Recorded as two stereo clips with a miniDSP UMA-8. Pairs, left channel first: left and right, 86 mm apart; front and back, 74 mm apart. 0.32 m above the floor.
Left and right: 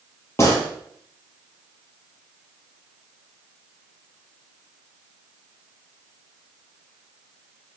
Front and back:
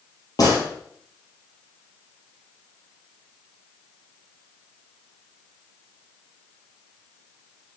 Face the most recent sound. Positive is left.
turn(degrees=30)